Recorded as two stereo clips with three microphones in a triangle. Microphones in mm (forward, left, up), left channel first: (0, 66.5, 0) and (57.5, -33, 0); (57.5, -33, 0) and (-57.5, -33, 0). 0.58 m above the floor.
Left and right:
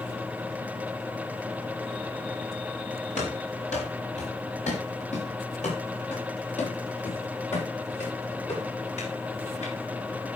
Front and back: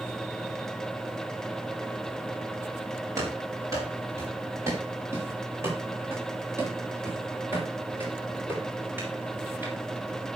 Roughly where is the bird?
No bird in this recording.